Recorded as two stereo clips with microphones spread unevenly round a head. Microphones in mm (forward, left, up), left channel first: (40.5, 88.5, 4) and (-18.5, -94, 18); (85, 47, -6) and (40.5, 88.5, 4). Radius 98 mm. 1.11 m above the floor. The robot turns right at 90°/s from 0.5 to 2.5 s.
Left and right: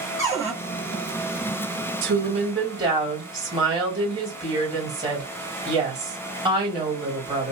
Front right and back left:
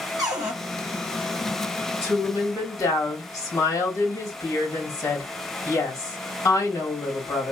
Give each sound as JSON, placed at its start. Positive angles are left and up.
{"t": 0.2, "sound": "a cupboard door", "azimuth_deg": 145, "distance_m": 1.5}
{"t": 2.0, "sound": "a woman speaking", "azimuth_deg": -80, "distance_m": 1.6}